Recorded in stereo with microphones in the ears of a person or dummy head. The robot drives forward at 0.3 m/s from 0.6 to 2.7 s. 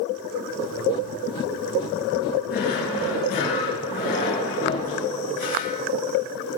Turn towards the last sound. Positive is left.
turn(degrees=45)  # may be behind; listen again after turning